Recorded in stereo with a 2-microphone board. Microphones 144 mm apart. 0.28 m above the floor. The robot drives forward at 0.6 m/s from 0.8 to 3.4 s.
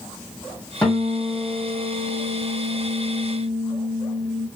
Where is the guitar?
10° left (ahead or behind), 1.6 m.